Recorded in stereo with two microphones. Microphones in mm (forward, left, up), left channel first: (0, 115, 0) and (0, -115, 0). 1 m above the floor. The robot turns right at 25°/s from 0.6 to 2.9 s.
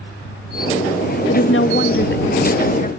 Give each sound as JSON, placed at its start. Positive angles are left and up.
{"t": 1.3, "sound": "a woman speaking", "azimuth_deg": 105}